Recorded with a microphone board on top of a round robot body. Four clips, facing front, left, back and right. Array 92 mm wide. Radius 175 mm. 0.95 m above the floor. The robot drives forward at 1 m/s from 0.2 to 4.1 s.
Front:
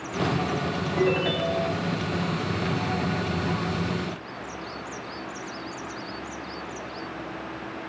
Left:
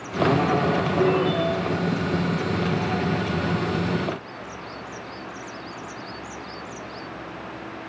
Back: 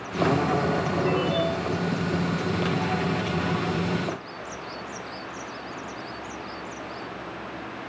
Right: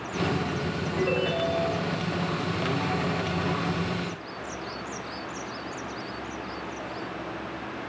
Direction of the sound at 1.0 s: 20° right.